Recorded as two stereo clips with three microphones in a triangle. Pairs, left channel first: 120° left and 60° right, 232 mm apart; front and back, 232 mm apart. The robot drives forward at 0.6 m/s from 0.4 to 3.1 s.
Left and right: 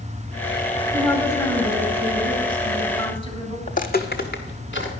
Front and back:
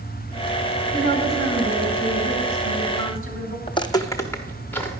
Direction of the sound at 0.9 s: 170° right.